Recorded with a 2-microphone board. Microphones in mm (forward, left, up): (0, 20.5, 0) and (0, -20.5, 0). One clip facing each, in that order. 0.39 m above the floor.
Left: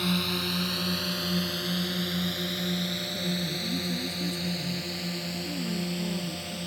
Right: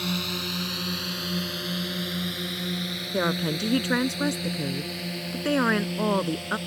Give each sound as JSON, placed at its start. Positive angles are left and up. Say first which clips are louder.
{"t": 0.0, "sound": "a drone", "louder": "left 1 dB", "side_deg": 5}
{"t": 3.1, "sound": "a woman speaking", "louder": "right 6 dB", "side_deg": -75}